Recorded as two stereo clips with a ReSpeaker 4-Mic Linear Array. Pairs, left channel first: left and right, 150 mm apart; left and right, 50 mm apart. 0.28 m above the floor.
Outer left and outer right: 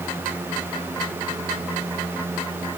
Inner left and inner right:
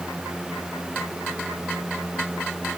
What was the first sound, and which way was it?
Only background noise.